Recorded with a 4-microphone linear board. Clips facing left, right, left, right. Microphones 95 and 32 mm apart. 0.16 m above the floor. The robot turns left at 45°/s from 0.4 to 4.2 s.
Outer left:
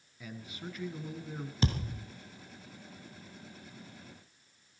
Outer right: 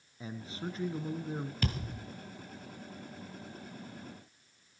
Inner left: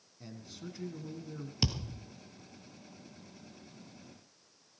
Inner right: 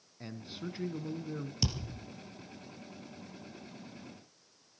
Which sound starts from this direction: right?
A man speaking, at 0.2 s.